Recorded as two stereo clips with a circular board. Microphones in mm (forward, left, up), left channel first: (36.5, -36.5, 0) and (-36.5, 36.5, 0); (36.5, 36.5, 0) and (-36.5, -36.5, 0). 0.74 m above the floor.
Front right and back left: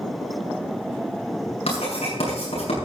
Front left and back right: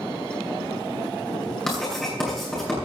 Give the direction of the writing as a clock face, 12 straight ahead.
1 o'clock.